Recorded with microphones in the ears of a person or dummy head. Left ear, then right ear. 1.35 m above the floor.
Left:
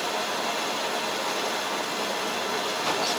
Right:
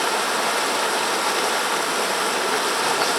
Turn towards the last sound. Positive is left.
turn(degrees=-45)  # may be behind; listen again after turning